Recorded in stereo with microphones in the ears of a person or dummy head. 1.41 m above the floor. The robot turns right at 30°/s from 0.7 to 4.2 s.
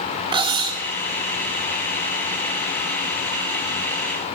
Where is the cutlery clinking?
25° right (ahead or behind), 1.0 m.